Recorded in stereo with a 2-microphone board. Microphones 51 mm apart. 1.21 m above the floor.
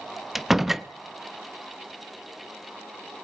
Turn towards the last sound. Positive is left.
turn(degrees=-5)  # may be behind; listen again after turning